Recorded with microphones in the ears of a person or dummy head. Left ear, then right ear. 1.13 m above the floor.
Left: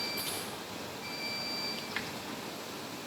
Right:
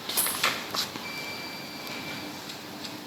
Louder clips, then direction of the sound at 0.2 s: Right 8 dB; 55° right (ahead or behind).